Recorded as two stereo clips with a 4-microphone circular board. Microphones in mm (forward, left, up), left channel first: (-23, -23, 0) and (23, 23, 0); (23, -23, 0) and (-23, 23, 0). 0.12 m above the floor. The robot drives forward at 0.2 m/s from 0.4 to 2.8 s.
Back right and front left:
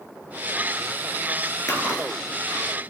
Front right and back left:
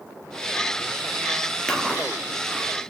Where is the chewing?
115° right, 2 m; by 2.7 s 120° right, 2 m.